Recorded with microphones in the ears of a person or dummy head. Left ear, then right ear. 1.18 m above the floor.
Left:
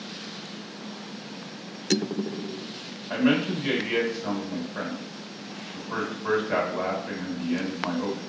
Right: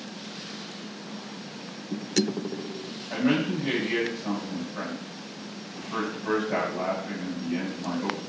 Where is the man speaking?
75° left (ahead or behind), 1.9 m.